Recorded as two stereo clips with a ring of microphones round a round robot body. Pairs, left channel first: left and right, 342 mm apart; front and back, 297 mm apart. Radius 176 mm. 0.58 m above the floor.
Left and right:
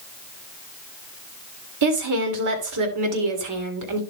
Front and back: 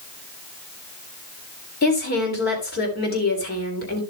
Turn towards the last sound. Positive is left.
turn(degrees=-60)